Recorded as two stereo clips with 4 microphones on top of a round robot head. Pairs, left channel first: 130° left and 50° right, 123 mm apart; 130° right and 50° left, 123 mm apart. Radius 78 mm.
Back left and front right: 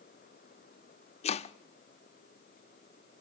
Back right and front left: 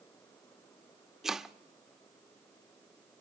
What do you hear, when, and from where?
1.2 s chopping: 135° left, 0.5 m